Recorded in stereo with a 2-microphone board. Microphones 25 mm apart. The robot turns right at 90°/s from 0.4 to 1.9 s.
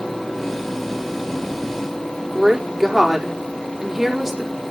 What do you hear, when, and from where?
2.3 s a woman speaking: 15° right (ahead or behind), 5 m